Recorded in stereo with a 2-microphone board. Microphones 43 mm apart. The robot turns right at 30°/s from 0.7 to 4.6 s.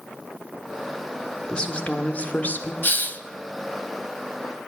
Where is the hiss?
50° left (ahead or behind), 0.6 m; by 3.2 s 45° left (ahead or behind), 0.6 m.